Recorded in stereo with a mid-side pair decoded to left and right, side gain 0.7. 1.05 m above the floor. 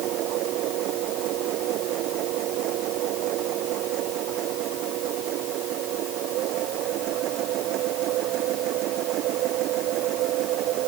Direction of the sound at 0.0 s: 55° right.